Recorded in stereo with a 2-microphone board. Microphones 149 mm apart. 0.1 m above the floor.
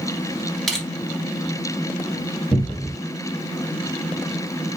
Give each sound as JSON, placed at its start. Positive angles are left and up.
{"t": 0.7, "sound": "crushing", "side_deg": 5, "distance_m": 1.6}
{"t": 2.5, "sound": "a cupboard door", "side_deg": 5, "distance_m": 1.0}